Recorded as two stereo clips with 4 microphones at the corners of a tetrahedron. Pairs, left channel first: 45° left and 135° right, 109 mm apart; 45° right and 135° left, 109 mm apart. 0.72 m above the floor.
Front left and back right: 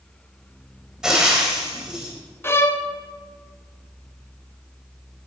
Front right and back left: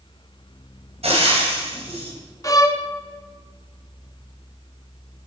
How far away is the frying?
About 3.5 m.